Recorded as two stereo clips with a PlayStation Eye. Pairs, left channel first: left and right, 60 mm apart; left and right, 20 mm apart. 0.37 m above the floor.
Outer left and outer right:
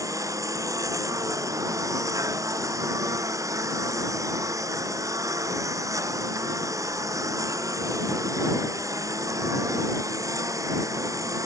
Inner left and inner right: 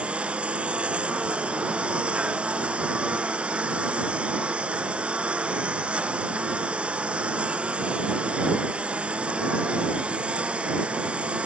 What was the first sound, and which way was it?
A lawn mower, 65° right (ahead or behind).